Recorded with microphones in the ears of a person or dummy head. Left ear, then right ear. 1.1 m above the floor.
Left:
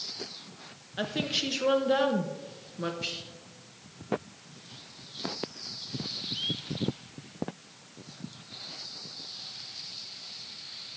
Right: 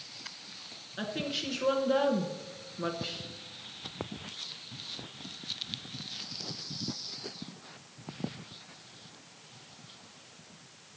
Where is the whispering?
55° left (ahead or behind), 4 m.